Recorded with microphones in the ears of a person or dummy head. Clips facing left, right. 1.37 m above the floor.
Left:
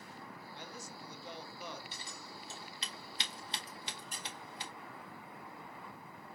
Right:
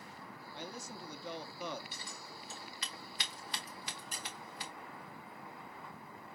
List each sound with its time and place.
0.5 s a man speaking: 65° right (ahead or behind), 0.8 m
1.9 s scissors: 30° left (ahead or behind), 1.0 m
4.1 s a squeak: 65° right (ahead or behind), 1.2 m